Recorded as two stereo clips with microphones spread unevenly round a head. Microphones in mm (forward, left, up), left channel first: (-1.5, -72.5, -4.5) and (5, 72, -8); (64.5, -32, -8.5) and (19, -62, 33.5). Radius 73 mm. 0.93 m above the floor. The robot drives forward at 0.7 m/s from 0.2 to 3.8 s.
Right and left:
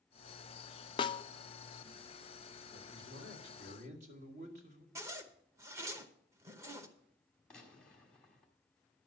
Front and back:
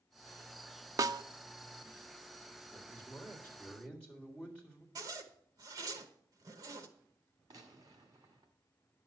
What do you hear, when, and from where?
1.0 s a snare drum: 95° right, 0.5 m; by 1.2 s 130° right, 0.6 m
2.7 s a man speaking: 95° left, 2.5 m; by 4.8 s 110° left, 2.5 m
5.0 s a zipper: 150° left, 0.8 m
7.5 s a gunshot: 175° right, 1.7 m